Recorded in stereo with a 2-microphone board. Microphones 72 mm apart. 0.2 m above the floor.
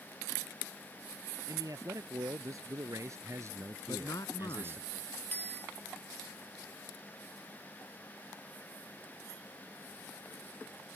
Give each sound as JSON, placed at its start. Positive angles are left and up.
{"t": 1.5, "sound": "a man speaking", "side_deg": -55}
{"t": 3.9, "sound": "a man speaking", "side_deg": 55}
{"t": 5.3, "sound": "a bicycle bell", "side_deg": 25}